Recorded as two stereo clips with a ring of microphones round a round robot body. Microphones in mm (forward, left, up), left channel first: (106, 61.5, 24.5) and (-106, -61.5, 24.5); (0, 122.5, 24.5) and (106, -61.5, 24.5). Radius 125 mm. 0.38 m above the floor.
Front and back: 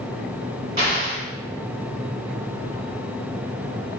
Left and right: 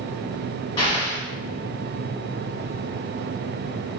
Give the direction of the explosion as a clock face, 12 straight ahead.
6 o'clock.